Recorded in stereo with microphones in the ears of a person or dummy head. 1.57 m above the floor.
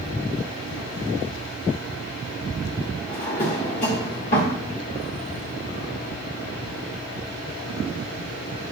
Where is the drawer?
30° left (ahead or behind), 1.4 m.